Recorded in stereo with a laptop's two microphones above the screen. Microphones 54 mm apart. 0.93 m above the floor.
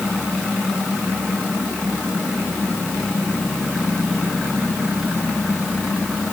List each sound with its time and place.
Only background noise.